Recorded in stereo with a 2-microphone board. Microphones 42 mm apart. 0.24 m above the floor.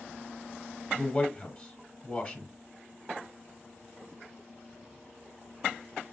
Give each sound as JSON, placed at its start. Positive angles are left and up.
{"t": 0.9, "sound": "a man speaking", "side_deg": 30, "distance_m": 1.5}